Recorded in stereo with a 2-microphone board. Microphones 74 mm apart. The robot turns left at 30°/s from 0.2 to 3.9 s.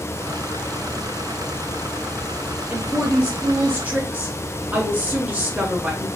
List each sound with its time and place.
2.7 s a woman speaking: 15° right (ahead or behind), 1.2 m; by 6.1 s 20° right (ahead or behind), 1.2 m